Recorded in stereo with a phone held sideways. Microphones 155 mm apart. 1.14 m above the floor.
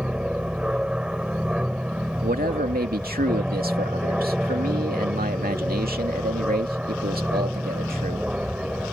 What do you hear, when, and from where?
0.0 s an aircraft: 5° right (ahead or behind)
2.2 s a man speaking: 75° right (ahead or behind)